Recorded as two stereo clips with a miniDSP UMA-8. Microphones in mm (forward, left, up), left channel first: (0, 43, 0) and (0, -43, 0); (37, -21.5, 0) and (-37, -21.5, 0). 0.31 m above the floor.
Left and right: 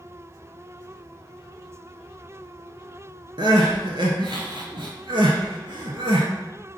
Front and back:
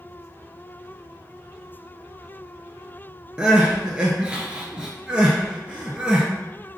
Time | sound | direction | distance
3.4 | crying | 100° right | 0.8 m